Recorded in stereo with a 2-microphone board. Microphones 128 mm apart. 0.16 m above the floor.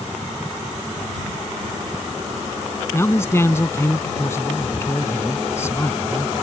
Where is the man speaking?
20° left (ahead or behind).